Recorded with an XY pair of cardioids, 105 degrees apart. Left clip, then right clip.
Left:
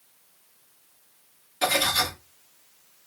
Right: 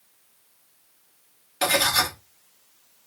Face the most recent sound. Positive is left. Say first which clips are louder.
# right 2 dB
turn(degrees=-70)